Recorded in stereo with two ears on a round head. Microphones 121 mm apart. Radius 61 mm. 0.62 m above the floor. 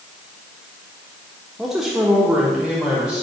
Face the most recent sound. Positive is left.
turn(degrees=-5)  # may be behind; listen again after turning